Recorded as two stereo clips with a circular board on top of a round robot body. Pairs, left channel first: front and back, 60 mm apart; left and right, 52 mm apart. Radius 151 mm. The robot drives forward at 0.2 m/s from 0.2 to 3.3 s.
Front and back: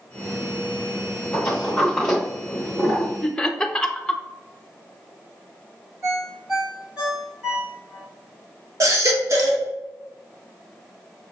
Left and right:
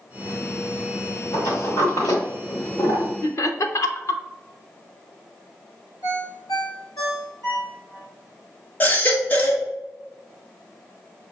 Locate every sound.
1.3 s a sliding door: 65° left, 0.9 m; by 3.1 s 110° left, 0.9 m
3.2 s laughter: 80° left, 0.7 m
6.0 s a ringtone: 100° left, 0.7 m
8.8 s a baby crying: 145° left, 1.0 m